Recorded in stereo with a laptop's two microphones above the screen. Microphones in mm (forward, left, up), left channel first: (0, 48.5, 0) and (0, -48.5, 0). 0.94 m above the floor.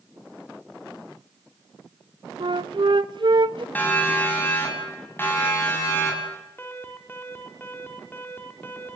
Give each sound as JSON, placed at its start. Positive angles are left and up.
{"t": 2.4, "sound": "a flute", "side_deg": -60, "distance_m": 0.8}
{"t": 3.8, "sound": "a siren", "side_deg": 20, "distance_m": 7.0}
{"t": 6.6, "sound": "an alarm", "side_deg": 20, "distance_m": 3.5}